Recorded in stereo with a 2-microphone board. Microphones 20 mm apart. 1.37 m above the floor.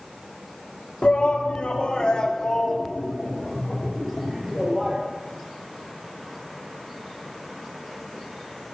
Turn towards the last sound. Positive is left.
turn(degrees=0)  # may be behind; listen again after turning